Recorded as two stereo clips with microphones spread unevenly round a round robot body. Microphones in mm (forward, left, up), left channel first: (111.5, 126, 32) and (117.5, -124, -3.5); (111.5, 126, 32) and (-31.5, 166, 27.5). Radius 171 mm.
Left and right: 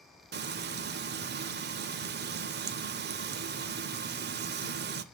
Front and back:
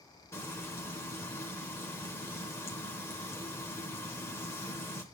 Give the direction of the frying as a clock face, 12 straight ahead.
3 o'clock.